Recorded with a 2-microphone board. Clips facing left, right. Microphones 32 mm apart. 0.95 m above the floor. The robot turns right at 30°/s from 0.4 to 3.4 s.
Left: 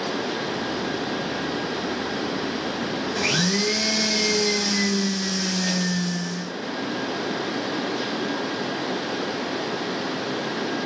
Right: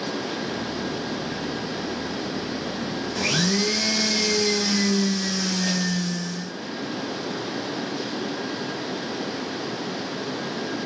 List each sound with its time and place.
3.2 s a blender: 15° left (ahead or behind), 0.5 m; by 6.5 s 5° left (ahead or behind), 0.5 m